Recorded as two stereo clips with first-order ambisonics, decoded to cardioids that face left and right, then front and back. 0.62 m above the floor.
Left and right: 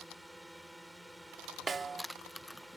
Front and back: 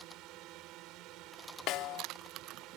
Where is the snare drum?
25° right.